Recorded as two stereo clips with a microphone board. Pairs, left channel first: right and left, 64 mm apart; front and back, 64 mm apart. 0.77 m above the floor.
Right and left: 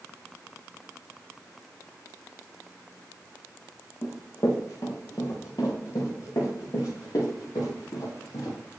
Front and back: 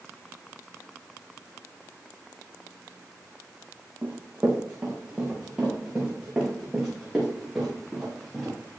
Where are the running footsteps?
115° right, 4 m; by 8.6 s 90° right, 5.5 m.